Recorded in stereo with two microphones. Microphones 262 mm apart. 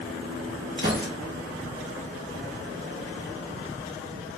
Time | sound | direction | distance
0.8 | a gunshot | 40° right (ahead or behind) | 1.0 m